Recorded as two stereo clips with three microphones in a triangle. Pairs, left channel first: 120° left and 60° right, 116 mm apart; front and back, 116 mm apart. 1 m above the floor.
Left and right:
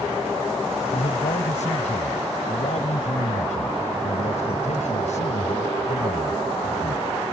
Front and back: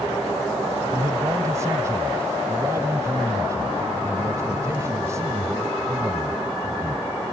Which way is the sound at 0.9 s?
115° left.